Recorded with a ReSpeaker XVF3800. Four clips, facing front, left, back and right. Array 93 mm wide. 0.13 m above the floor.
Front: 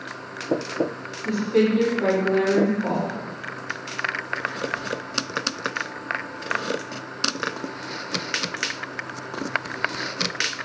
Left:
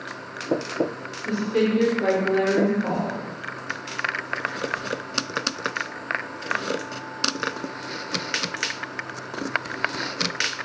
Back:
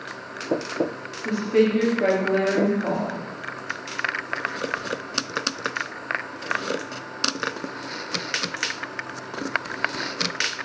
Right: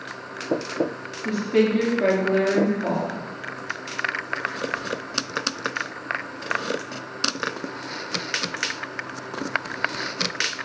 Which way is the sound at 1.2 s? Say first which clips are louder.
Right 2 dB, even; 125° right.